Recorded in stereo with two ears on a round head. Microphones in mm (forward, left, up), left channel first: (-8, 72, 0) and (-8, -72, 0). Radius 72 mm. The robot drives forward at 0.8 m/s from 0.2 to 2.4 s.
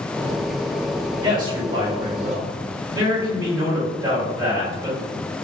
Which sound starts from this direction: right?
A man speaking, at 1.2 s.